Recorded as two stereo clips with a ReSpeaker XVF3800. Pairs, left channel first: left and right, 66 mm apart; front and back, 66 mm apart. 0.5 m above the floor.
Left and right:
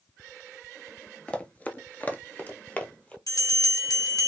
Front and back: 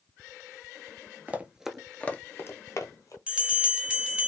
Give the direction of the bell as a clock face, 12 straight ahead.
8 o'clock.